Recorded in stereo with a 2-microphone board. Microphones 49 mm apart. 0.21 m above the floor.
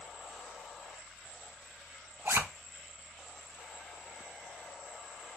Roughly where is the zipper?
Right.